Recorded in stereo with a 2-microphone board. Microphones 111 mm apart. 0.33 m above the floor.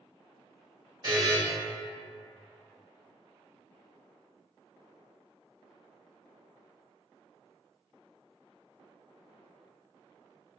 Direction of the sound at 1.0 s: 40° right (ahead or behind).